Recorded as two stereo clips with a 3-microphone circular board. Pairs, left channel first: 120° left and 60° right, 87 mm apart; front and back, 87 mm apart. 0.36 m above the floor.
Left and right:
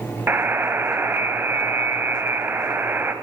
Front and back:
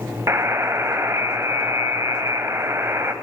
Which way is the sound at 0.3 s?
125° right.